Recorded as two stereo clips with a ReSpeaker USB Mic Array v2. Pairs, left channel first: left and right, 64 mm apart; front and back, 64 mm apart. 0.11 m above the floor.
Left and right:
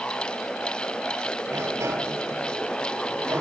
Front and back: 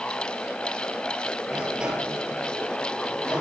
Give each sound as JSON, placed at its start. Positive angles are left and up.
{"t": 1.5, "sound": "a sliding door", "azimuth_deg": -110, "distance_m": 2.5}